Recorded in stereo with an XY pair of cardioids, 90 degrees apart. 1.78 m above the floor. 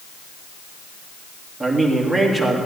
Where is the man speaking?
10° right, 3 m.